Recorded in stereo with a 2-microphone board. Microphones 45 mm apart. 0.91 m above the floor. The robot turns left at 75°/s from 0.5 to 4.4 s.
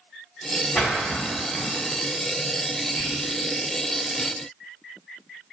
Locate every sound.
0.8 s a splash: 10° left (ahead or behind), 0.9 m; by 1.7 s 55° left (ahead or behind), 0.9 m
3.0 s whispering: 60° left (ahead or behind), 1.0 m; by 3.2 s 50° left (ahead or behind), 1.0 m